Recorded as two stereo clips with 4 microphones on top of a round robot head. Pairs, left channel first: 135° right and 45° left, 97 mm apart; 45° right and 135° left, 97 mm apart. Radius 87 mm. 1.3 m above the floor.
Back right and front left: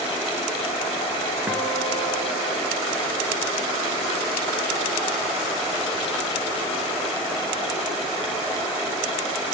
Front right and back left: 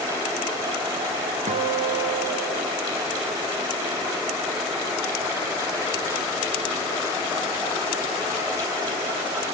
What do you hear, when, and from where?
1.5 s a guitar: 120° left, 1.5 m